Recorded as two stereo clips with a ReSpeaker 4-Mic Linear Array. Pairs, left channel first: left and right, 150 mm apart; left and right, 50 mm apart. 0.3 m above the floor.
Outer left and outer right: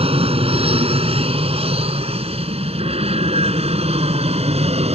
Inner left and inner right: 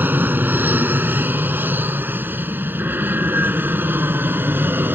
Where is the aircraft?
40° right (ahead or behind); by 5.0 s 45° right (ahead or behind).